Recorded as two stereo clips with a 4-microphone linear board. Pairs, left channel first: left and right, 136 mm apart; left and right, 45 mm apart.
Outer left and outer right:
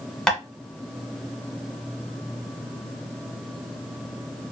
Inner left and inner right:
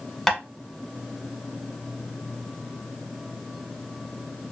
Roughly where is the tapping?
Centre.